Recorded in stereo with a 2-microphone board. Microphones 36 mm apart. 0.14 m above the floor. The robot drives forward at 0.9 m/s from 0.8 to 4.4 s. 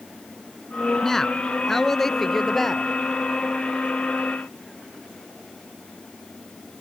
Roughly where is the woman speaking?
Centre.